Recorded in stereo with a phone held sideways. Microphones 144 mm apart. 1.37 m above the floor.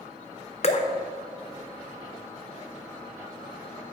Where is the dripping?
45° left (ahead or behind), 0.7 m.